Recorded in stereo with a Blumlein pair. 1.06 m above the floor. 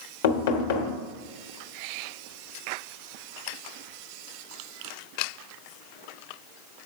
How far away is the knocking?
About 1.1 m.